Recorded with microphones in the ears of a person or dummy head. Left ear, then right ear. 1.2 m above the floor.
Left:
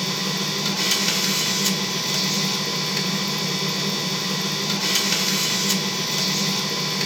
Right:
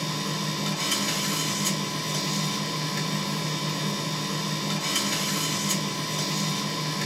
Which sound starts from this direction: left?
A machine running, at 0.0 s.